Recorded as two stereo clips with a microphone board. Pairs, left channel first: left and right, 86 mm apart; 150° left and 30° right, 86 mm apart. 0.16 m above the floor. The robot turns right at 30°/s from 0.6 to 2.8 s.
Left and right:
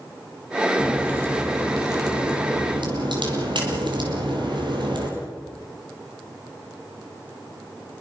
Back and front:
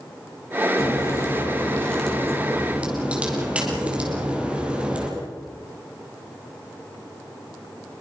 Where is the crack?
165° right, 5 m; by 5.1 s 105° right, 5 m.